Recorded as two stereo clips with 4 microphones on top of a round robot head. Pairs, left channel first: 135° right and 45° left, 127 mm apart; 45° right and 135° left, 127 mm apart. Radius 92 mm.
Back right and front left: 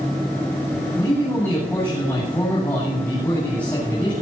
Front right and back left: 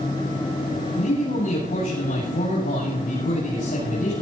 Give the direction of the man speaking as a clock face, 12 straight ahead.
2 o'clock.